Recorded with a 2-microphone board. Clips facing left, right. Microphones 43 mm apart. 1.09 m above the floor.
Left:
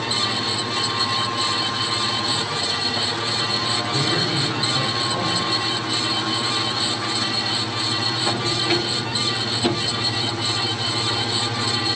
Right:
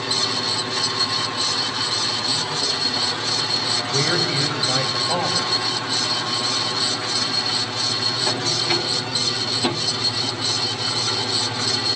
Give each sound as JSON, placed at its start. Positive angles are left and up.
{"t": 3.9, "sound": "a man speaking", "side_deg": -80, "distance_m": 7.0}